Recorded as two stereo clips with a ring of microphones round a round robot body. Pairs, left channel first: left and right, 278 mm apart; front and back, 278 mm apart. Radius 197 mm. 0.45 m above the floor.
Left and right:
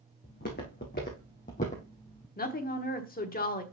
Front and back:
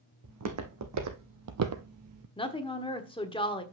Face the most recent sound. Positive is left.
turn(degrees=60)